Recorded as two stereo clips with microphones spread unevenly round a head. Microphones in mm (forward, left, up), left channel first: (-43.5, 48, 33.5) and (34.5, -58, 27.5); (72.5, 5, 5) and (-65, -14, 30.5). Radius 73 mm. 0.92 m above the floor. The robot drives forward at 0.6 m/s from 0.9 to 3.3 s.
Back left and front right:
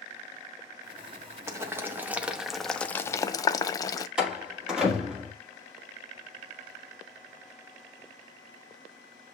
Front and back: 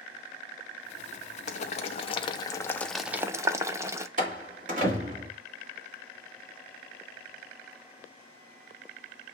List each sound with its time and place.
1.5 s boiling: 10° left, 1.1 m; by 4.1 s 125° left, 0.6 m
4.2 s a door slam: 140° right, 1.8 m